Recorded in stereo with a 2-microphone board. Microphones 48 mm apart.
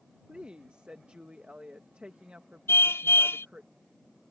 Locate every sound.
0.3 s a woman speaking: 25° right (ahead or behind)
2.7 s a car horn: 70° left (ahead or behind)